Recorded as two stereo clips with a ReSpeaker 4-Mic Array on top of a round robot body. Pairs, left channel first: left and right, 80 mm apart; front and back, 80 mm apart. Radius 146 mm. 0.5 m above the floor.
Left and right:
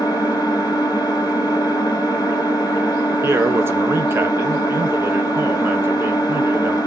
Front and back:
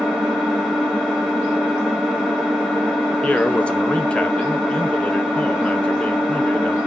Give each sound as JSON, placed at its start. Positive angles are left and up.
{"t": 0.0, "sound": "an engine running", "azimuth_deg": 95, "distance_m": 1.4}
{"t": 3.2, "sound": "a man speaking", "azimuth_deg": -65, "distance_m": 0.7}